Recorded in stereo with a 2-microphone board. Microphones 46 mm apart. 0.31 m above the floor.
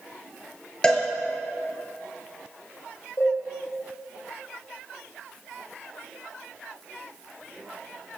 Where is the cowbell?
15° left (ahead or behind), 4.5 m.